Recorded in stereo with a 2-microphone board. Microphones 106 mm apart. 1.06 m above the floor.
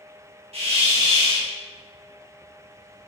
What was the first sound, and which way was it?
A hiss, 75° right (ahead or behind).